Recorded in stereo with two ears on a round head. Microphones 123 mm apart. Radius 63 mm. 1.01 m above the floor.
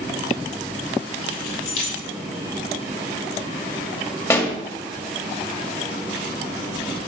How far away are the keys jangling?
About 3 m.